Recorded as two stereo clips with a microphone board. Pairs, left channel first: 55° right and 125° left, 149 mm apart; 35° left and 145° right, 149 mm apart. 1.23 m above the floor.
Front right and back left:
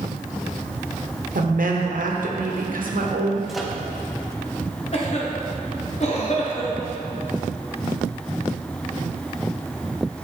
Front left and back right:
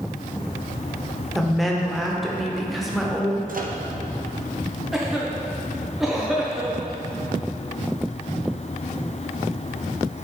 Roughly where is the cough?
Ahead right.